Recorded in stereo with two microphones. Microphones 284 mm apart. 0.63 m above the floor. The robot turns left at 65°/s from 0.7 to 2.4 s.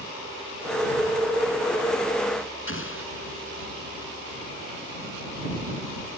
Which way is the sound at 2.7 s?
45° left (ahead or behind).